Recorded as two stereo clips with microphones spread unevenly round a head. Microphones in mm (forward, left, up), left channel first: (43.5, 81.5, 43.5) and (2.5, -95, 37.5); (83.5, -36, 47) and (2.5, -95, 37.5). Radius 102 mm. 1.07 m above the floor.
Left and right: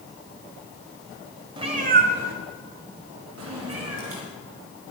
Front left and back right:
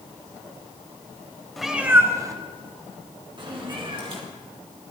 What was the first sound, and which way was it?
A cat meowing, 45° right.